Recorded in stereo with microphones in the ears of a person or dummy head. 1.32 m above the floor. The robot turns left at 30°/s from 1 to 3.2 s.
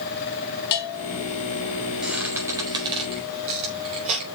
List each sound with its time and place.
0.7 s a bell: 55° left (ahead or behind), 2.5 m; by 1.2 s 50° left (ahead or behind), 2.5 m
2.0 s a squeak: centre (ahead or behind), 4 m; by 4.2 s 35° right (ahead or behind), 4 m